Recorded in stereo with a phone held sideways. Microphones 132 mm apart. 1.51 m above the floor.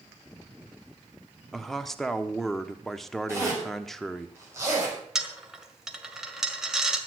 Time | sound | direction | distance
1.5 | a man speaking | centre (ahead or behind) | 1.0 m
3.3 | a zipper | 20° right (ahead or behind) | 6.5 m
5.2 | a dropped coin | 5° right (ahead or behind) | 1.7 m